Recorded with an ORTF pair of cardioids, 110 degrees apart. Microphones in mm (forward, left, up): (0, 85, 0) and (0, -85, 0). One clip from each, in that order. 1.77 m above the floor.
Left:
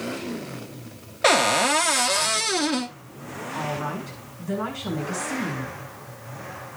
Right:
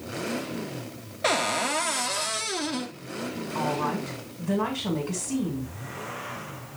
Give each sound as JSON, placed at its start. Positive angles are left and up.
{"t": 1.2, "sound": "a cupboard door", "azimuth_deg": 30, "distance_m": 0.8}
{"t": 3.5, "sound": "a woman speaking", "azimuth_deg": -25, "distance_m": 6.5}